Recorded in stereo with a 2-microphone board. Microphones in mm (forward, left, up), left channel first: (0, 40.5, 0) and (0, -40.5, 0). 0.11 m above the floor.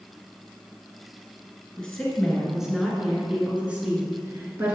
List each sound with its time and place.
1.8 s a woman speaking: 5° left (ahead or behind), 1.7 m; by 4.8 s 25° right (ahead or behind), 1.8 m